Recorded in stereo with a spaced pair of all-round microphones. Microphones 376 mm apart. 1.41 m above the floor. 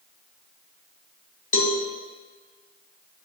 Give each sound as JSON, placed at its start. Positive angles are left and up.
{"t": 1.5, "sound": "a cowbell", "side_deg": 85, "distance_m": 1.1}